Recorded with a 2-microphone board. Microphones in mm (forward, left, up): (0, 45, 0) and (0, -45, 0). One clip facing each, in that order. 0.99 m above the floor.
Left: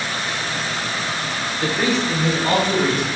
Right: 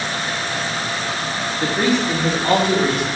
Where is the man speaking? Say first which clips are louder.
Right 2 dB; 40° right (ahead or behind), 1.1 m; by 3.1 s 50° right (ahead or behind), 2 m.